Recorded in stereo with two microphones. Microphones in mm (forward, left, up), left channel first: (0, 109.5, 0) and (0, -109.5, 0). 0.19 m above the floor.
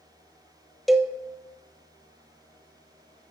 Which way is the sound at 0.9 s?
Centre (ahead or behind).